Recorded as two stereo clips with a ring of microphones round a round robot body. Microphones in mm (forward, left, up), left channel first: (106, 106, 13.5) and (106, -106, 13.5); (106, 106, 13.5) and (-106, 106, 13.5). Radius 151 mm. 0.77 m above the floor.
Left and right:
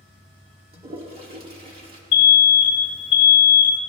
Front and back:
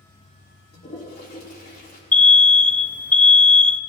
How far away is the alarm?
About 0.5 m.